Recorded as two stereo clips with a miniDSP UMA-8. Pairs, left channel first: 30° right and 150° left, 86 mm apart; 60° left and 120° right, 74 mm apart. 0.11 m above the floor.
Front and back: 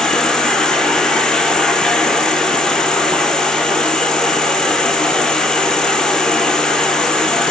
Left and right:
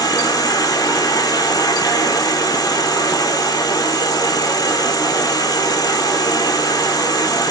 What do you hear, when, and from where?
0.0 s an insect: 50° left, 0.8 m